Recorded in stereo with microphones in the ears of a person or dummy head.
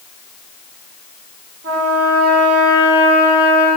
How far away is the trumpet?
About 1.8 m.